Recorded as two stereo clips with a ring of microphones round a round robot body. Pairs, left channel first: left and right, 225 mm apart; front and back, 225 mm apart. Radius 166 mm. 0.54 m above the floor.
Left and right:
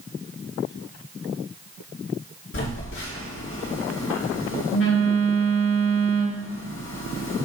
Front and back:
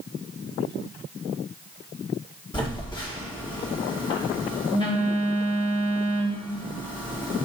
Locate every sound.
2.5 s a phone buzzing: 70° left, 2 m